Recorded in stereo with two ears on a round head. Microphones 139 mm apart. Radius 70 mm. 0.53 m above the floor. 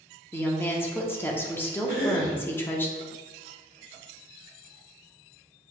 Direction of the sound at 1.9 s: 30° left (ahead or behind).